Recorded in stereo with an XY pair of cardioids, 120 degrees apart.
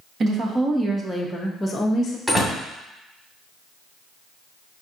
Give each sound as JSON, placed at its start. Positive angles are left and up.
{"t": 0.2, "sound": "a woman speaking", "azimuth_deg": -40, "distance_m": 1.1}
{"t": 2.3, "sound": "a door slam", "azimuth_deg": -5, "distance_m": 1.6}